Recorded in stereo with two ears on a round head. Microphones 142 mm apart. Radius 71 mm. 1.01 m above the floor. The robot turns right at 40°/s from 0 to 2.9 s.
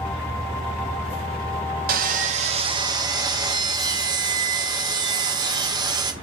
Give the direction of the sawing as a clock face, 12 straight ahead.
2 o'clock.